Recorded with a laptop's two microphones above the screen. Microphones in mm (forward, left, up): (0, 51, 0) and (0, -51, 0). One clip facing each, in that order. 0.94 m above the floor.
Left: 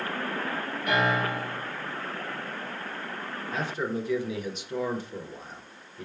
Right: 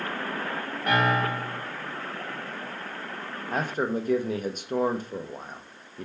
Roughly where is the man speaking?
Right.